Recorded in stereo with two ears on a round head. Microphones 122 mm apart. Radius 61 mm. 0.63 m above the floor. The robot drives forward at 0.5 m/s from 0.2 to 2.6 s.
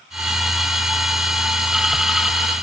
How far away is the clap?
I don't hear a clap.